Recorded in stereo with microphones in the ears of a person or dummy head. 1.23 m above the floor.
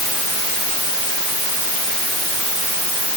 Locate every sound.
Only background noise.